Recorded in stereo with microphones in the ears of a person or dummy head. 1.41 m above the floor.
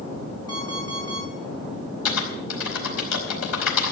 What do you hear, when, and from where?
0.5 s an alarm clock: 25° left (ahead or behind), 6 m
2.0 s typing on a keyboard: 80° left, 4.5 m